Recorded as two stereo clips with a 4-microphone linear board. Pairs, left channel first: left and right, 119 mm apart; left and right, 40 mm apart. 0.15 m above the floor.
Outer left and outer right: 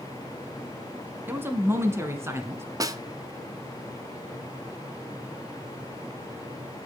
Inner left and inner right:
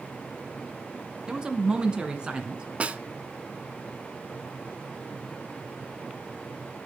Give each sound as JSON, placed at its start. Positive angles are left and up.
{"t": 1.3, "sound": "a man speaking", "side_deg": -15, "distance_m": 1.1}
{"t": 2.8, "sound": "a snare drum", "side_deg": -30, "distance_m": 0.5}